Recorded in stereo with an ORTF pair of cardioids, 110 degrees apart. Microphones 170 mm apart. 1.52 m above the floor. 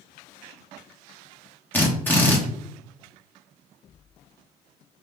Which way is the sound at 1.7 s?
10° left.